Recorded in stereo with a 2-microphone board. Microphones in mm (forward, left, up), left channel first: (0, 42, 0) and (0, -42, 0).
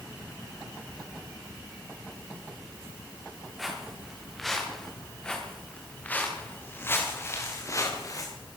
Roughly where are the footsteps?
Centre.